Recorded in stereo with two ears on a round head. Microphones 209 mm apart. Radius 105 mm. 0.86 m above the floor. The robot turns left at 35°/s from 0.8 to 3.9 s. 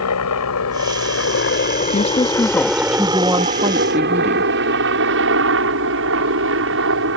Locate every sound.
0.0 s a helicopter: 70° left (ahead or behind); by 7.2 s 60° right (ahead or behind)
1.9 s a woman speaking: 35° left; by 4.5 s 35° right